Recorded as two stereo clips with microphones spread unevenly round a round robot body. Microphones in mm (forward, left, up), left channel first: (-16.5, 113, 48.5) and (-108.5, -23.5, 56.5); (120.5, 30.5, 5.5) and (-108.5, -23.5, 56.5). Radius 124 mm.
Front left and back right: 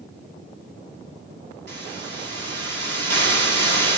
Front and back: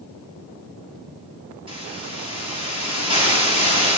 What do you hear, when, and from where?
1.7 s a hiss: 95° right, 8.5 m